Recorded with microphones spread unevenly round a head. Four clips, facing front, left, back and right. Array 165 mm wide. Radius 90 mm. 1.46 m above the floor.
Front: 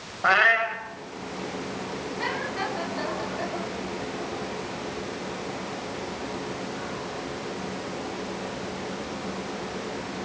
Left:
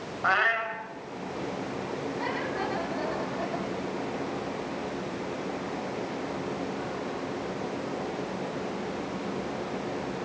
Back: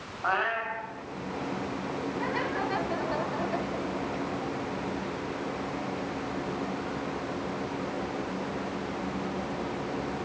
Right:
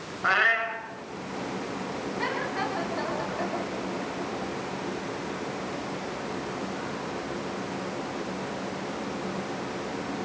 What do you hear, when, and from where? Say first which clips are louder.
0.2 s a cat meowing: right 1 dB, front 7 dB; 25° right, 4 m